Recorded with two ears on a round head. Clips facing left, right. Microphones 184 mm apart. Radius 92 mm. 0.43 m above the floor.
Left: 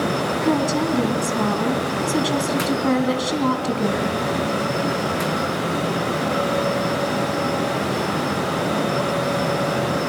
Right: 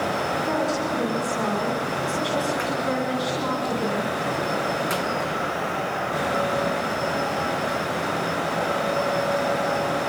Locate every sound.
0.4 s a woman speaking: 60° left (ahead or behind), 3.5 m